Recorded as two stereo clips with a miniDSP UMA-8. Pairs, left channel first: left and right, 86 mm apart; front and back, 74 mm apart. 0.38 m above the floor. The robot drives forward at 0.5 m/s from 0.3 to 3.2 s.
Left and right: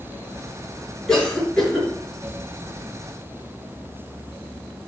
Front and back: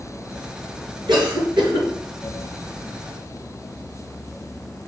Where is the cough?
170° left, 5 m.